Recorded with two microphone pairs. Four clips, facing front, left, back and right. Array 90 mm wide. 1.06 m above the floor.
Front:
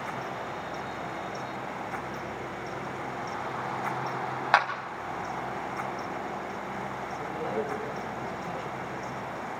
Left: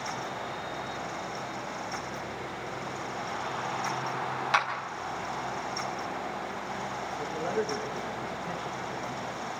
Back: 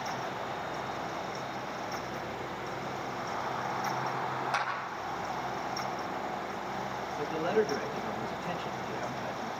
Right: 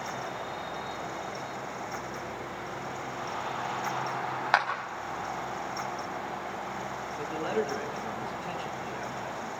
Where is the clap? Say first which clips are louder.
Right 2 dB, front 12 dB; 20° right, 4.5 m.